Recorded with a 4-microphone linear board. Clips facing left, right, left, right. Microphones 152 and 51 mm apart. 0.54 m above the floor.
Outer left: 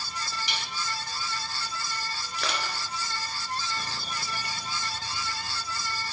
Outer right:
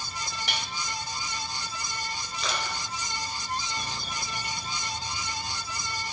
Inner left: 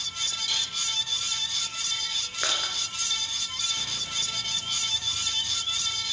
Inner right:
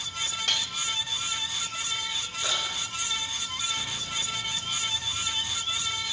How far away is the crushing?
About 2 m.